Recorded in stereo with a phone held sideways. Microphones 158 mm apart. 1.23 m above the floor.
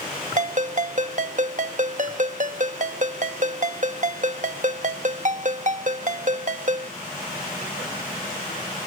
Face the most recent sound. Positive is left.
turn(degrees=-55)  # may be behind; listen again after turning